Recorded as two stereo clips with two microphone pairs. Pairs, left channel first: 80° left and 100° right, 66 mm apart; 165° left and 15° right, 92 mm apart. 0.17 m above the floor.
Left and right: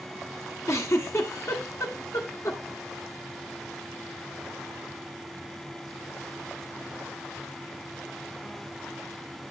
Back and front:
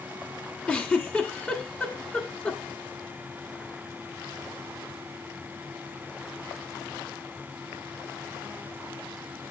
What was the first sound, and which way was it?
A giggle, 95° left.